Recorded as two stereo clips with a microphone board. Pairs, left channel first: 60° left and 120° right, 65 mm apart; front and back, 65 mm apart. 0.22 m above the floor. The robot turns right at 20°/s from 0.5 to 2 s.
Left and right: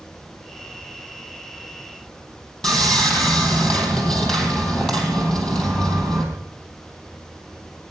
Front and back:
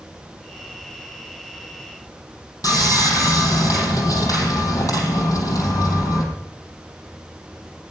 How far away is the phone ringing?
No phone ringing in this recording.